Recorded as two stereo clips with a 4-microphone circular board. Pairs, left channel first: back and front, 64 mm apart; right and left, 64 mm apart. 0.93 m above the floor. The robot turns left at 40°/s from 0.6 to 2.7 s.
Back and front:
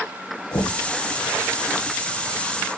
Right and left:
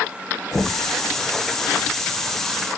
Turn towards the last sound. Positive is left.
turn(degrees=120)